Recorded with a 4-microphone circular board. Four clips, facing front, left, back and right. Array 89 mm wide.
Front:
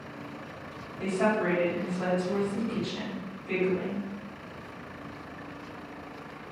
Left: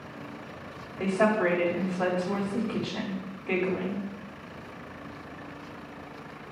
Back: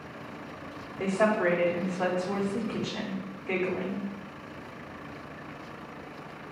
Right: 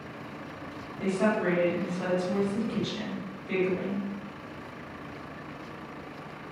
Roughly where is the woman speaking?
Behind left.